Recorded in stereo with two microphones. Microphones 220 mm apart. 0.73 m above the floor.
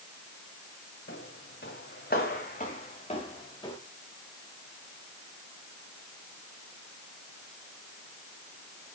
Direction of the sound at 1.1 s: 65° left (ahead or behind).